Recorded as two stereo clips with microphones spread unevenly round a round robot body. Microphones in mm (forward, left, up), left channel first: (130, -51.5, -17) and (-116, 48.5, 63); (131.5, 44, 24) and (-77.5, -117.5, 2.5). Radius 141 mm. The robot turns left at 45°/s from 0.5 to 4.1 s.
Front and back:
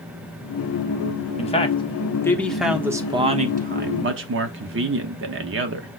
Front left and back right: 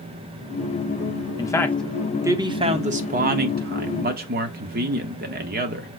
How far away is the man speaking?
About 1.0 m.